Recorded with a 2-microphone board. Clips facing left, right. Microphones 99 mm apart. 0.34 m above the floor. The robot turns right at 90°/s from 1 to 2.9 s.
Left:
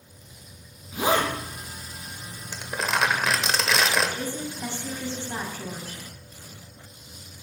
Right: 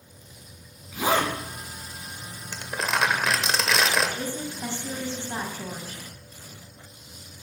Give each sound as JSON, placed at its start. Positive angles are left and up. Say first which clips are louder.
{"t": 0.9, "sound": "a zipper", "louder": "left 1 dB", "side_deg": 30, "distance_m": 4.0}
{"t": 2.5, "sound": "crumpling", "louder": "even", "side_deg": 10, "distance_m": 0.9}
{"t": 4.2, "sound": "a woman speaking", "louder": "even", "side_deg": -20, "distance_m": 1.8}